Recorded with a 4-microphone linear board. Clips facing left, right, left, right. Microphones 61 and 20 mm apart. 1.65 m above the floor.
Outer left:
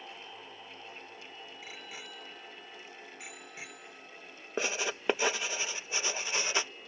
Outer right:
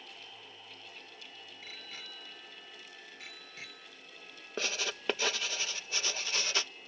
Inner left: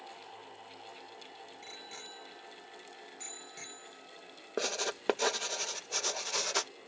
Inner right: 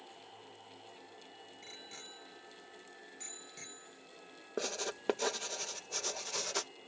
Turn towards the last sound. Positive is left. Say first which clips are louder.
# outer left 3 dB, inner left 4 dB
turn(degrees=20)  # may be behind; listen again after turning